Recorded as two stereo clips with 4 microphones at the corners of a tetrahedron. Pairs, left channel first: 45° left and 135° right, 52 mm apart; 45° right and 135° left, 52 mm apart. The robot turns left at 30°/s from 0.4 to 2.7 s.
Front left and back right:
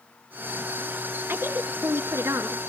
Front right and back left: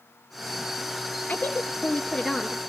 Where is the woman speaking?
105° right, 3 m; by 2.6 s 145° right, 3 m.